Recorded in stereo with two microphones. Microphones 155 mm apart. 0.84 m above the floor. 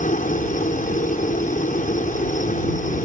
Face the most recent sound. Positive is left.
turn(degrees=55)  # may be behind; listen again after turning